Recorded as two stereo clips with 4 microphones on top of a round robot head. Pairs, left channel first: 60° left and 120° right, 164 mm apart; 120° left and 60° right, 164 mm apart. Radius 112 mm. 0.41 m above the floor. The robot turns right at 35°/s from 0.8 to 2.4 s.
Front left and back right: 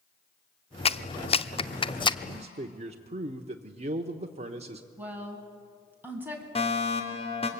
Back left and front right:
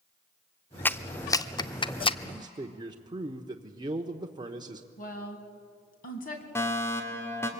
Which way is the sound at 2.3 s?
110° right.